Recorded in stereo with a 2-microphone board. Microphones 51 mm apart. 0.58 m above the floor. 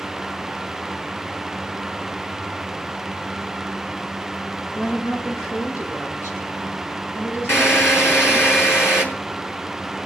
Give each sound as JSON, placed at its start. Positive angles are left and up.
{"t": 4.8, "sound": "a woman speaking", "side_deg": 80, "distance_m": 7.5}
{"t": 7.5, "sound": "a drill", "side_deg": 55, "distance_m": 5.5}